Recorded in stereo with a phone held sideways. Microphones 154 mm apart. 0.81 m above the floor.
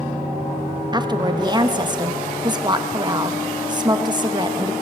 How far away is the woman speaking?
About 0.8 m.